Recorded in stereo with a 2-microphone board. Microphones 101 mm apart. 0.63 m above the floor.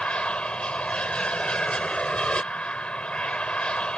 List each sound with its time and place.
0.0 s an aircraft: 10° left (ahead or behind)